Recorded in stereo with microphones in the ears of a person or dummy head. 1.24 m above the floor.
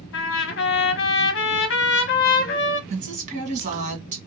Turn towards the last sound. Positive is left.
turn(degrees=-40)  # may be behind; listen again after turning